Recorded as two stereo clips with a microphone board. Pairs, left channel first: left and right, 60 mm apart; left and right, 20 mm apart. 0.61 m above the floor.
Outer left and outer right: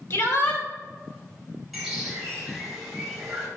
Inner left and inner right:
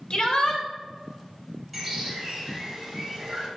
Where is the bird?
5° right (ahead or behind), 4 m.